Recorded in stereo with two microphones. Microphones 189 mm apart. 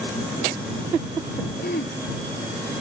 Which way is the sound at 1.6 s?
55° left (ahead or behind).